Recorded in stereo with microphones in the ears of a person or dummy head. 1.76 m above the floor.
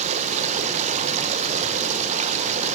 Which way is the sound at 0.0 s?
40° right (ahead or behind).